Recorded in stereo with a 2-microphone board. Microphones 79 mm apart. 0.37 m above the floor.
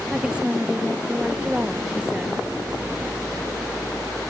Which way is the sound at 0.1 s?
15° right (ahead or behind).